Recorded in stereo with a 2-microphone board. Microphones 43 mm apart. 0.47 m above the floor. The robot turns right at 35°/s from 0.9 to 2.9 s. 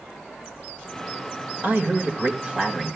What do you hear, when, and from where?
1.6 s a man speaking: 60° right, 1.9 m; by 3.0 s 15° right, 1.9 m